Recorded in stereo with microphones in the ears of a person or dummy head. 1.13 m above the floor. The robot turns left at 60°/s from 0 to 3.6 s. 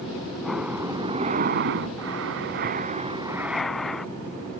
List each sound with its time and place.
0.4 s breathing: 10° left; by 4.1 s straight behind